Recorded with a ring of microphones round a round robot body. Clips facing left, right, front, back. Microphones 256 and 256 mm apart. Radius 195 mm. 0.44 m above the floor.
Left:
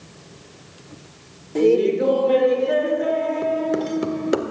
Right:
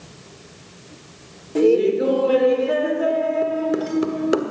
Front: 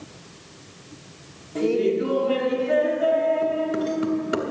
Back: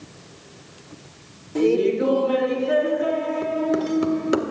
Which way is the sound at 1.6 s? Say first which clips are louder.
Right 1 dB, back 3 dB; 175° right.